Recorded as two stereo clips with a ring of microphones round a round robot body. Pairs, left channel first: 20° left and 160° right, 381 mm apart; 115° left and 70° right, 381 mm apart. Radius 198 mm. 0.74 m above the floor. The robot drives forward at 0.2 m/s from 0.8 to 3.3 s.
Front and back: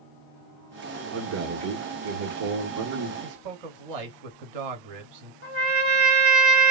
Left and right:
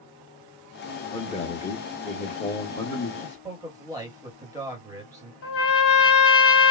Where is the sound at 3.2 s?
150° right, 1.2 m.